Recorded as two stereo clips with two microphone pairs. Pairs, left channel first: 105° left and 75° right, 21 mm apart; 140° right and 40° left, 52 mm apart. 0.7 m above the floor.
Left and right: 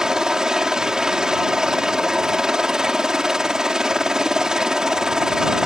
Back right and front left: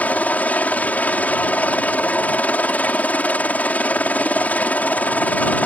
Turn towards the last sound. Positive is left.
turn(degrees=-100)